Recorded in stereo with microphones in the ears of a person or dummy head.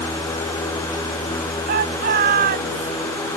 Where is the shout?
50° right (ahead or behind); by 2.9 s 45° right (ahead or behind).